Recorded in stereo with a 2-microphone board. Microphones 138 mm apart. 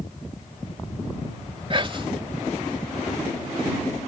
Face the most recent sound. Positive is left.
turn(degrees=-40)  # may be behind; listen again after turning